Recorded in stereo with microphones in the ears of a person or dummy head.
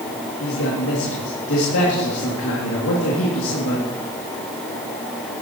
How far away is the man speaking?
About 2 m.